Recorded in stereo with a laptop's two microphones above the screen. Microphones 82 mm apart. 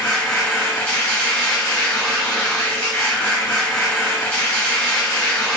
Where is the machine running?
15° left (ahead or behind), 0.9 m.